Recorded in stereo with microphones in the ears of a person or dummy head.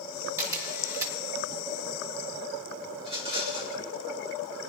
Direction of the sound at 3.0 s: 25° right (ahead or behind).